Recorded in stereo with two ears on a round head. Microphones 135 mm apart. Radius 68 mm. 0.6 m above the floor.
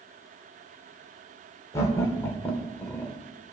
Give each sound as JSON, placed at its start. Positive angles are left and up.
{"t": 1.7, "sound": "laughter", "side_deg": 20, "distance_m": 2.0}